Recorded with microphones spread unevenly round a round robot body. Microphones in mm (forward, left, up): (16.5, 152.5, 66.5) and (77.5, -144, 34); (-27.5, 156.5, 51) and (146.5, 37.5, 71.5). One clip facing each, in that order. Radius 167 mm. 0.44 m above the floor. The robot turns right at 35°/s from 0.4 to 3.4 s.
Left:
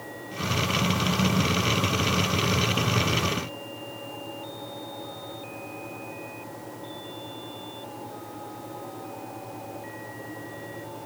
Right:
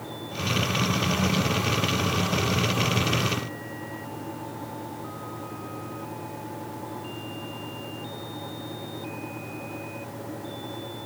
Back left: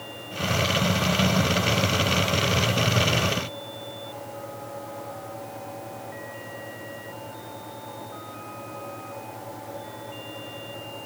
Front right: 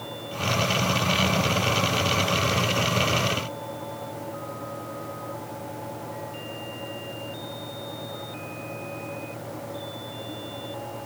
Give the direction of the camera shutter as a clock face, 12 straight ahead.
I don't hear a camera shutter.